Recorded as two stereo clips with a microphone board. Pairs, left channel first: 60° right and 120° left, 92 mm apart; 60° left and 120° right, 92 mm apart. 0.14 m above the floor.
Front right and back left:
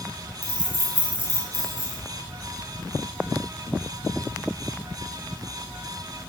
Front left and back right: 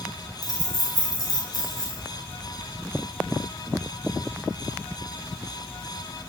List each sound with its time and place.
0.4 s keys jangling: 50° left, 1.2 m